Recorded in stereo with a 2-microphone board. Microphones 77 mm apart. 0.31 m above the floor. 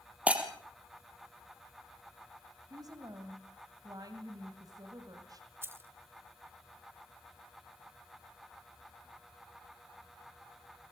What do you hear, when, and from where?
0.3 s breaking glass: 15° right (ahead or behind), 3.5 m
2.7 s a woman speaking: 55° right (ahead or behind), 2 m
5.6 s keys jangling: 30° right (ahead or behind), 1.1 m